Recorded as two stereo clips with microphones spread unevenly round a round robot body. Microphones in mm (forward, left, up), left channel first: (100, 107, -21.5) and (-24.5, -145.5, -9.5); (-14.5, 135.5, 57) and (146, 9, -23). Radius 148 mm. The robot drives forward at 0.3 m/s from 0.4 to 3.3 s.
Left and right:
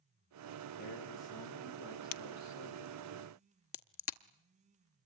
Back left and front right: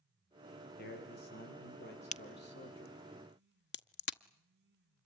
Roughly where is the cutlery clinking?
No cutlery clinking in this recording.